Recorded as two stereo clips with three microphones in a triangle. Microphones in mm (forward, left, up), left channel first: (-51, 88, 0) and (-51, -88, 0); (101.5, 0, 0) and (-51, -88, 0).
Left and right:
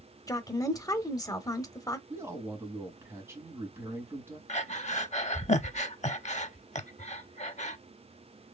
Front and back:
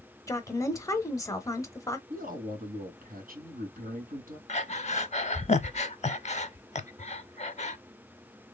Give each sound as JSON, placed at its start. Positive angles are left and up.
{"t": 0.3, "sound": "a woman speaking", "azimuth_deg": 65, "distance_m": 0.9}
{"t": 2.1, "sound": "a man speaking", "azimuth_deg": -165, "distance_m": 2.5}
{"t": 4.5, "sound": "breathing", "azimuth_deg": 60, "distance_m": 0.6}